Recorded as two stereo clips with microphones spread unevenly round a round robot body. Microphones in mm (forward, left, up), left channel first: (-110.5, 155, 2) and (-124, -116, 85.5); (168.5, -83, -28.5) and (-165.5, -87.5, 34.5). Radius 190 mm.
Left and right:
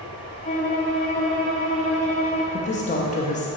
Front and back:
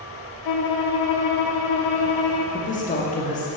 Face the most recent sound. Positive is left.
turn(degrees=55)